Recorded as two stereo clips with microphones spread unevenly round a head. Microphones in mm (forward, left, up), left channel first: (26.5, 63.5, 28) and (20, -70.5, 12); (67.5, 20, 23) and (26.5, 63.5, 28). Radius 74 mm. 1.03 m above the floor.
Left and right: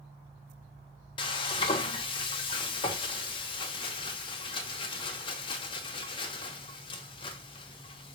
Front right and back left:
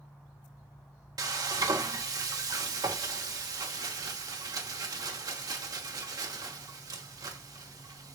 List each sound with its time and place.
1.2 s frying: 145° left, 0.7 m